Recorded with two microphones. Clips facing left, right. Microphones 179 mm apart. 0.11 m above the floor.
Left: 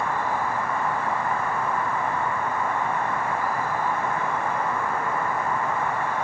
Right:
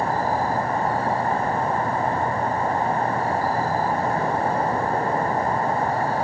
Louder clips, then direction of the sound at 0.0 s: Right 4 dB; 35° right (ahead or behind).